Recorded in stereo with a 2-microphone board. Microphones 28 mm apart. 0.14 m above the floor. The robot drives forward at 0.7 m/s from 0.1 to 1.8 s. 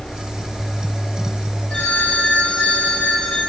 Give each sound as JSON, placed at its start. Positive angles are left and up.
{"t": 1.7, "sound": "a phone ringing", "side_deg": 50, "distance_m": 7.0}